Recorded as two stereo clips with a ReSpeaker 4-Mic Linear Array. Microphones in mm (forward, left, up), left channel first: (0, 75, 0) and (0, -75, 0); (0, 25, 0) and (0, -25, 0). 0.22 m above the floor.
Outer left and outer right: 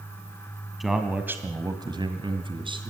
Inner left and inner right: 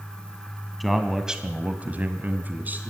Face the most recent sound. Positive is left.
turn(degrees=-35)  # may be behind; listen again after turning